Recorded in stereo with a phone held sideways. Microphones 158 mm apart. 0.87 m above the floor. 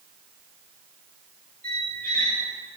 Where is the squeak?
70° right (ahead or behind), 1.4 m.